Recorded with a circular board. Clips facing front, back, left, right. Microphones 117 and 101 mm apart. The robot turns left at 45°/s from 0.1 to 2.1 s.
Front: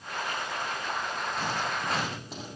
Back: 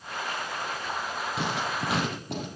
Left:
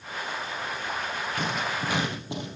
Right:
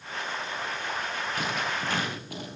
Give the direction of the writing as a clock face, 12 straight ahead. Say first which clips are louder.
Back 3 dB, left 2 dB; 6 o'clock.